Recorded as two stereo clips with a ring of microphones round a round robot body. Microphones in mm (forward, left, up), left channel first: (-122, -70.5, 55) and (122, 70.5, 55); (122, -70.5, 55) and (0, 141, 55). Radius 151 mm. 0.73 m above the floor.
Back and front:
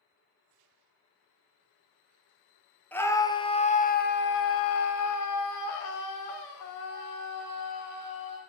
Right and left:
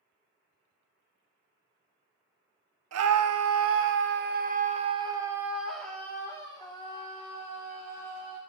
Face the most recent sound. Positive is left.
turn(degrees=-120)